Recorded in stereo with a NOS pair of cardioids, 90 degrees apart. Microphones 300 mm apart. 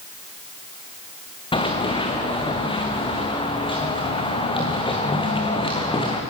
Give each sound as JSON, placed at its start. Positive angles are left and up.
{"t": 1.5, "sound": "running footsteps", "azimuth_deg": 15, "distance_m": 4.0}